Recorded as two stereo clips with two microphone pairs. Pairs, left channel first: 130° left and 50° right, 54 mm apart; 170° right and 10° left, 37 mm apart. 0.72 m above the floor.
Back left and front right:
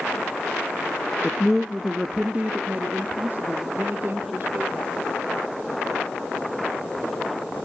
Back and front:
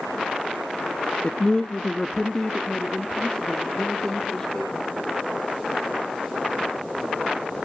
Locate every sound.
1.2 s a man speaking: 170° right, 0.8 m; by 4.9 s 85° right, 2 m